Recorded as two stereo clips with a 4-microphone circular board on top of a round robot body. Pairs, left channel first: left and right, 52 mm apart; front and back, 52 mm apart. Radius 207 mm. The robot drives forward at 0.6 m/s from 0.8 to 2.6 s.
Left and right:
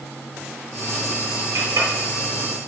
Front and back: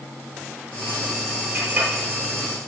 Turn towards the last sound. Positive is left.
turn(degrees=-120)